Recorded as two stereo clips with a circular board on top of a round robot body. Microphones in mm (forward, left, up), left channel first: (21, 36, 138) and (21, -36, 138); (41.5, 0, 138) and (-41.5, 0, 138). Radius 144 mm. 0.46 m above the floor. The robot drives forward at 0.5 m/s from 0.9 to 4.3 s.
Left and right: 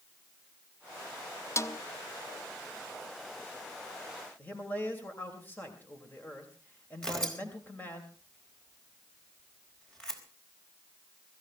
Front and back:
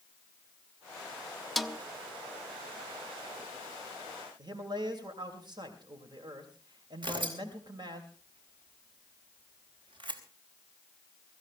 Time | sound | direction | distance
1.6 | a snare drum | 90° left | 1.2 m
4.4 | a man speaking | 155° left | 3 m
7.0 | tearing paper | 170° left | 4 m